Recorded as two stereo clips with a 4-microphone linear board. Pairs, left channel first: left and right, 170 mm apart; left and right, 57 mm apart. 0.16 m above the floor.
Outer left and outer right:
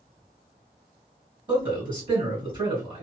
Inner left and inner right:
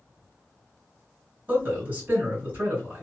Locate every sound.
1.5 s a man speaking: 30° right (ahead or behind), 2.0 m